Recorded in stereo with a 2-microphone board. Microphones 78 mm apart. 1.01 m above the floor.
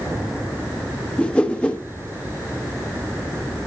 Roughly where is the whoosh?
Centre.